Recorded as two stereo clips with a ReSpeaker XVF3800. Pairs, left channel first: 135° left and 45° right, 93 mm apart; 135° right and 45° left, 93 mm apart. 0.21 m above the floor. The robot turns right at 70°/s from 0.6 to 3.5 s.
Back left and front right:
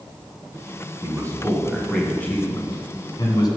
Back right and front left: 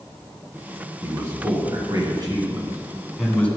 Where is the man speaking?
15° right, 2 m; by 3.5 s 155° left, 2 m.